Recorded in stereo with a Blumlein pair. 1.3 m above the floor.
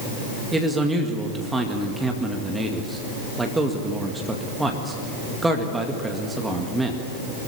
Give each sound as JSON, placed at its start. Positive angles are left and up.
{"t": 0.5, "sound": "a man speaking", "azimuth_deg": -10, "distance_m": 2.0}